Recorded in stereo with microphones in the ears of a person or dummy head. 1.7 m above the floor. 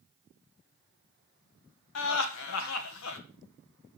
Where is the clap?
No clap in this recording.